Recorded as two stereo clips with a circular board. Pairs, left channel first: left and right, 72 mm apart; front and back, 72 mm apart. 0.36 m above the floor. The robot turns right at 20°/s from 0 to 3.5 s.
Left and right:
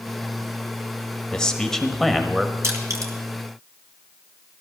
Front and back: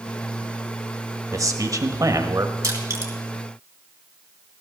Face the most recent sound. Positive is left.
turn(degrees=-120)